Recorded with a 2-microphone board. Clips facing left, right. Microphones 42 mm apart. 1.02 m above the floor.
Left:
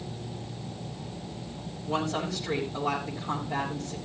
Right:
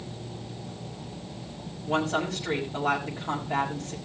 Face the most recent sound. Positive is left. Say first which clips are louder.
# right 3 dB
turn(degrees=-55)  # may be behind; listen again after turning